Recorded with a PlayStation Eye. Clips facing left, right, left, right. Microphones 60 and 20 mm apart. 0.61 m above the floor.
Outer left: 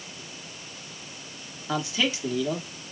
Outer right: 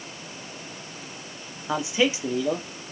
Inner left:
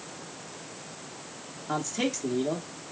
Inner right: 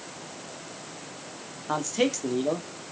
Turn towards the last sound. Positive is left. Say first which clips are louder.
# outer right 4 dB, inner right 4 dB
turn(degrees=-20)  # may be behind; listen again after turning